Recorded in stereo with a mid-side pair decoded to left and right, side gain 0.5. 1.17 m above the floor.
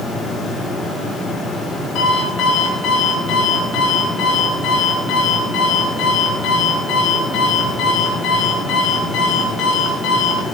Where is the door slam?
No door slam in this recording.